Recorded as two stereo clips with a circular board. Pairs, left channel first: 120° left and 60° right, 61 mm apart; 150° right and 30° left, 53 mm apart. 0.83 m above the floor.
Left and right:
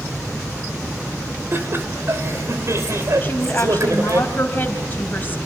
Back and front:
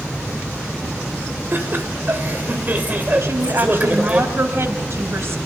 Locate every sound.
1.5 s laughter: 15° right, 4 m; by 4.2 s 35° right, 4 m
3.2 s a woman speaking: 65° left, 4.5 m